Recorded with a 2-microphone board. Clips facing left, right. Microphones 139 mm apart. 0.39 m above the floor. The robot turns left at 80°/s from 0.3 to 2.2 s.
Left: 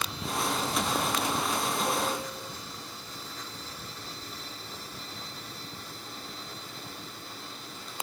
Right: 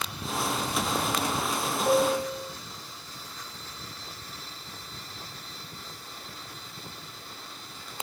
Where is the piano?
45° right (ahead or behind), 3.5 m; by 2.5 s 75° right (ahead or behind), 3.5 m.